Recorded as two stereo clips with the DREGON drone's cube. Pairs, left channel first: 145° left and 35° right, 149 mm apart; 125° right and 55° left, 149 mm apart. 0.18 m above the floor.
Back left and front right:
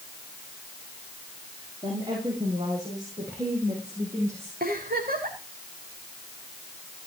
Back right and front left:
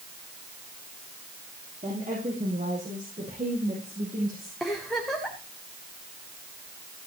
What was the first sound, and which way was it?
A woman speaking, 25° left.